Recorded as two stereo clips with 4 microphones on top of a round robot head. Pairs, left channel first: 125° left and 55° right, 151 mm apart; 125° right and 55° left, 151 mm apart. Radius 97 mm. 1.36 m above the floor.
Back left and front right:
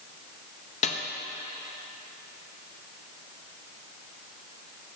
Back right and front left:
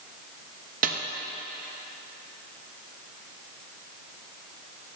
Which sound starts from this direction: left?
A snare drum, at 0.8 s.